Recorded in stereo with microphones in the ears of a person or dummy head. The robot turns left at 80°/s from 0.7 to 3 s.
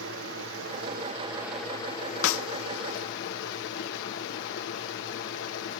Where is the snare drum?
75° left (ahead or behind), 0.7 m; by 2.4 s 90° left, 0.7 m.